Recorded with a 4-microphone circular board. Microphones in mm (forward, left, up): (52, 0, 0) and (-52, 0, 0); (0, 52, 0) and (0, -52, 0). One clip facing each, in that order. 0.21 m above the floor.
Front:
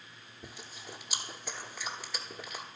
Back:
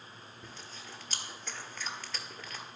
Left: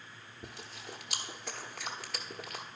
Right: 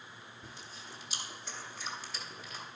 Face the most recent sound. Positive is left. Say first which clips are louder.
# front 3 dB, left 5 dB
turn(degrees=80)